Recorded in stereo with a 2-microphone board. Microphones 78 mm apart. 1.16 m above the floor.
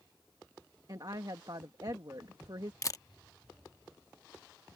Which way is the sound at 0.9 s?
50° right (ahead or behind).